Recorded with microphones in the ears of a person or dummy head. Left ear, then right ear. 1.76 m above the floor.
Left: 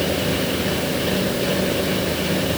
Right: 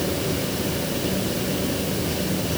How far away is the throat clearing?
No throat clearing in this recording.